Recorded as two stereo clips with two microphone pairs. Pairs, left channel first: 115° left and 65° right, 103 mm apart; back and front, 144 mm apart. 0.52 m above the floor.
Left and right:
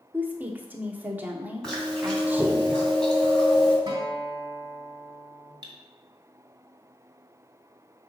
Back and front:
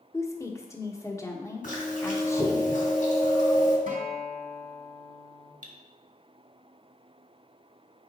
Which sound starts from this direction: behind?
Chewing, at 1.6 s.